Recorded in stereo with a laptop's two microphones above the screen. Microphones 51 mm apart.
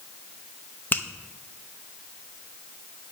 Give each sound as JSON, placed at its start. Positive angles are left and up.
{"t": 0.9, "sound": "a finger snap", "side_deg": 35, "distance_m": 0.8}